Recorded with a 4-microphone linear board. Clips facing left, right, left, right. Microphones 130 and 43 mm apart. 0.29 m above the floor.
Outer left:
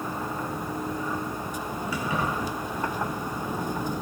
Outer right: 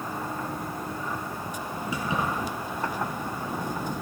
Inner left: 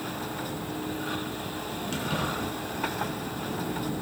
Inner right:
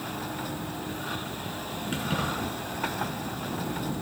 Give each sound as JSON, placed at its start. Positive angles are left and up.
{"t": 1.9, "sound": "keys jangling", "side_deg": -20, "distance_m": 3.0}